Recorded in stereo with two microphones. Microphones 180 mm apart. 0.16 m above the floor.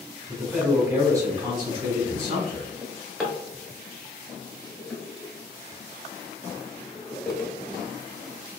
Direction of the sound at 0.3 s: Centre (ahead or behind).